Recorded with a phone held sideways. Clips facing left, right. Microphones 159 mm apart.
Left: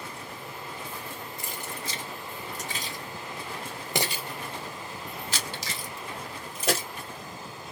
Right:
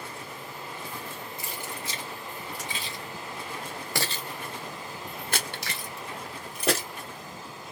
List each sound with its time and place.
1.4 s keys jangling: 45° left (ahead or behind), 2.5 m; by 6.9 s 60° right (ahead or behind), 1.8 m